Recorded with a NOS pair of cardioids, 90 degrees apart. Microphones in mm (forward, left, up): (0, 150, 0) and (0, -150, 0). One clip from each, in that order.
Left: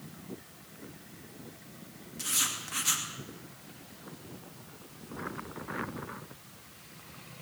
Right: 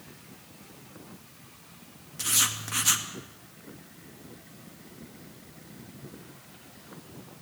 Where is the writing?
30° right, 2.5 m.